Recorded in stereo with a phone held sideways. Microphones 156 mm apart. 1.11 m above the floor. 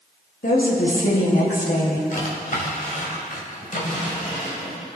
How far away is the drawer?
About 2 m.